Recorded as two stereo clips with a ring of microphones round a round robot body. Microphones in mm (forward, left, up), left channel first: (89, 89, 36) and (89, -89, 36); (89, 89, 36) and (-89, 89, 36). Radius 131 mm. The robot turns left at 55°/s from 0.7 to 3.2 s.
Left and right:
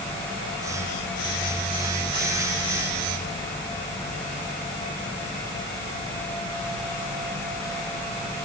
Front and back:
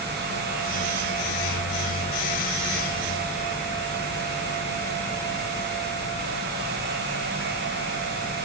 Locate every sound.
Only background noise.